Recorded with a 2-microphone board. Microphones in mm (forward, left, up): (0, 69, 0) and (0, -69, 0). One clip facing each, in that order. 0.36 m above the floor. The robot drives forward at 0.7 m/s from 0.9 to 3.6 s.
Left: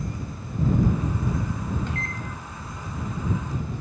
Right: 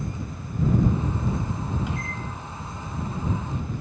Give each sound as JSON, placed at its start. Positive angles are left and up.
{"t": 1.9, "sound": "a microwave", "side_deg": -10, "distance_m": 1.9}